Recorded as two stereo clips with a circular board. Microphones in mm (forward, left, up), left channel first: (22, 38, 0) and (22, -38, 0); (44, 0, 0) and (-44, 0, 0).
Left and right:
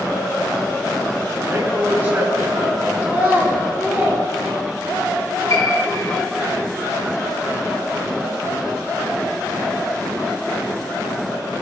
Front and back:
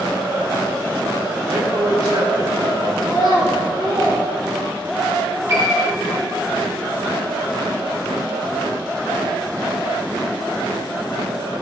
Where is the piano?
125° left, 2.5 m.